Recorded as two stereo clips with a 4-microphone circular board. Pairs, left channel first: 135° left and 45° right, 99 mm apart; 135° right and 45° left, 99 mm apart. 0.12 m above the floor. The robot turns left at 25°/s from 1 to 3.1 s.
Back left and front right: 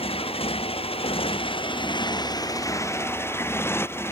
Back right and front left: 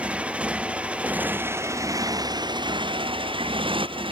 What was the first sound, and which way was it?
A motorcycle, 125° left.